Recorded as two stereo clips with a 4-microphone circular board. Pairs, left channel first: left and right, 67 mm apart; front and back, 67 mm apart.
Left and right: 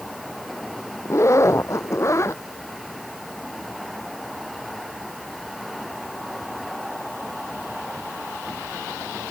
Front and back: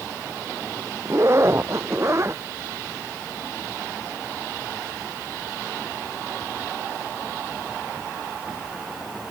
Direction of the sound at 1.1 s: 135° left.